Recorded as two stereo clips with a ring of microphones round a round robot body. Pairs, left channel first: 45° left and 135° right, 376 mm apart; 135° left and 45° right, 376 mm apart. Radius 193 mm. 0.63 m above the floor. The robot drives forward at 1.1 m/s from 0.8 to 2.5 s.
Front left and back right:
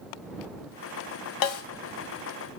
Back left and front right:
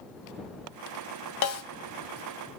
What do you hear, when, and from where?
1.4 s a snare drum: 85° left, 1.7 m; by 1.6 s 95° left, 1.7 m